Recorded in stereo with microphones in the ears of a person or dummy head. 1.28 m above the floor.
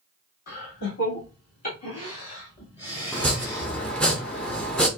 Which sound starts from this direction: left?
Laughter, at 0.5 s.